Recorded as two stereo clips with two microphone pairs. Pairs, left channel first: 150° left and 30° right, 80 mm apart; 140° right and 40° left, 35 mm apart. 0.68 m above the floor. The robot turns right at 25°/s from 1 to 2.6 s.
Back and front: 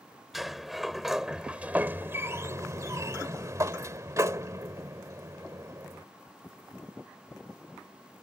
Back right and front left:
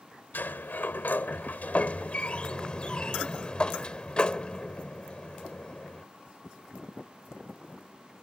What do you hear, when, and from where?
0.3 s a sliding door: 120° right; by 6.0 s 80° right